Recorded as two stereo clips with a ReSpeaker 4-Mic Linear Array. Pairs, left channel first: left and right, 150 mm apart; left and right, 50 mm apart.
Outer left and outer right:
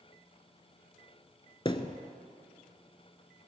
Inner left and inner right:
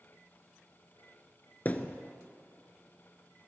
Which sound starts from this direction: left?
A thud, at 1.6 s.